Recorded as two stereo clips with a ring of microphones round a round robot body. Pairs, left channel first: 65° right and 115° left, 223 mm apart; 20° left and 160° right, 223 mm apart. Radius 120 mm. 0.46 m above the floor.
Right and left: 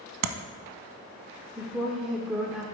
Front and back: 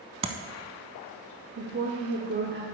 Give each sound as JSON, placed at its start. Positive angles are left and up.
{"t": 0.2, "sound": "tapping", "azimuth_deg": 135, "distance_m": 0.6}
{"t": 1.6, "sound": "a woman speaking", "azimuth_deg": -160, "distance_m": 0.9}